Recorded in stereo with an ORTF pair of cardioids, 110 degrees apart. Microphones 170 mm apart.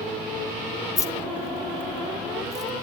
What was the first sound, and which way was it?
Keys jangling, 20° left.